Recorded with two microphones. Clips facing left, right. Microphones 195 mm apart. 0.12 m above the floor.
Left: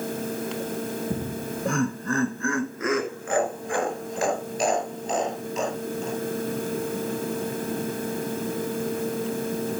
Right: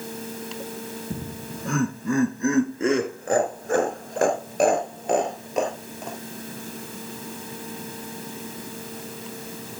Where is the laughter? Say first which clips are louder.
Left 4 dB; 15° left (ahead or behind), 1.3 m; by 6.2 s 65° right (ahead or behind), 2.5 m.